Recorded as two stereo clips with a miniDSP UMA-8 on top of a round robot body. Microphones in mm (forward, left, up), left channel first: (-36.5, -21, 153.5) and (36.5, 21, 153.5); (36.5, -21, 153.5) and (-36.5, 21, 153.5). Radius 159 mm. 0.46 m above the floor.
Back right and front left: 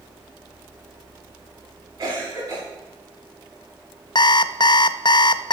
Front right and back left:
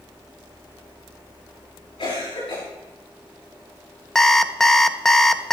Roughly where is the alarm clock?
Behind right.